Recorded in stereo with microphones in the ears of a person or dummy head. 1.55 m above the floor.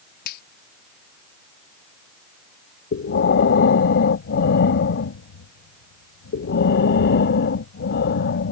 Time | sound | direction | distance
0.2 | a finger snap | 65° left (ahead or behind) | ?
2.9 | breathing | 65° left (ahead or behind) | ?